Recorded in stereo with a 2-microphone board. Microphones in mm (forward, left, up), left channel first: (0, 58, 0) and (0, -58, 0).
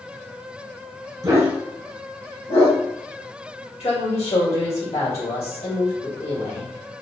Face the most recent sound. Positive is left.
turn(degrees=70)  # may be behind; listen again after turning